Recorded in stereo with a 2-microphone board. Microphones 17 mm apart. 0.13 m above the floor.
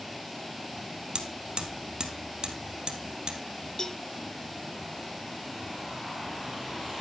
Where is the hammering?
60° right (ahead or behind), 2.0 m.